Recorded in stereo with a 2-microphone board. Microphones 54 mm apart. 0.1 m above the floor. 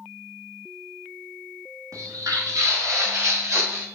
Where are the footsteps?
85° right, 1.8 m; by 3.9 s 40° right (ahead or behind), 3 m.